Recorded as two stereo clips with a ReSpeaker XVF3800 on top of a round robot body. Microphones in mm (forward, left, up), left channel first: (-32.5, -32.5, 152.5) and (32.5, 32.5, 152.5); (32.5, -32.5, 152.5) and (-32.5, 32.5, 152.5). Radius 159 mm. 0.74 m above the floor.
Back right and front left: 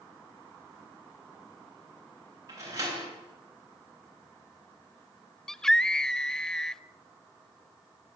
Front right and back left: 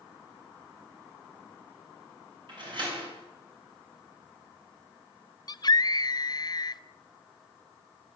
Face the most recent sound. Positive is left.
turn(degrees=-55)